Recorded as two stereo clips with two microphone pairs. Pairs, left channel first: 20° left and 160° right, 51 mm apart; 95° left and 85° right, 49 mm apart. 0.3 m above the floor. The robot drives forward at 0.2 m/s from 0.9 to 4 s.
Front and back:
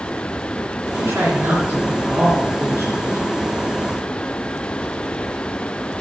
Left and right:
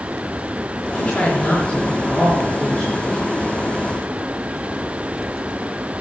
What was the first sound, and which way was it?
A woman speaking, straight behind.